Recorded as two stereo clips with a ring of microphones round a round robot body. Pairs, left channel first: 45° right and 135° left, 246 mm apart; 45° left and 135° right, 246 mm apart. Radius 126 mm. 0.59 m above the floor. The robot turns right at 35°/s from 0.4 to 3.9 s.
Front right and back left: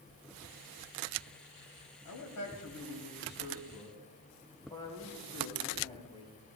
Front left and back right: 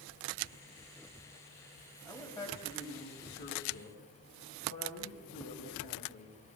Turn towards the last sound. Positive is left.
turn(degrees=20)